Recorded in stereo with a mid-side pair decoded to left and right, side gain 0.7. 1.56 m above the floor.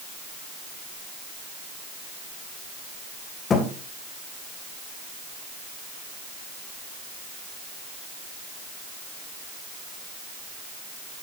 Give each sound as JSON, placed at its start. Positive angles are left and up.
{"t": 3.5, "sound": "a thud", "azimuth_deg": 30, "distance_m": 3.5}